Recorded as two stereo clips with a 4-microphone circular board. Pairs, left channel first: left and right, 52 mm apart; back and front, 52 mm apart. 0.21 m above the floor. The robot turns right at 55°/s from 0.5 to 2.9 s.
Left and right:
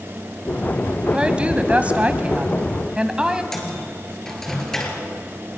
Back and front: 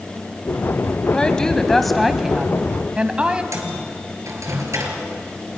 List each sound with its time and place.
1.1 s a woman speaking: 135° right, 1.3 m; by 3.4 s 40° right, 1.3 m
3.5 s a microwave: 10° left, 3.5 m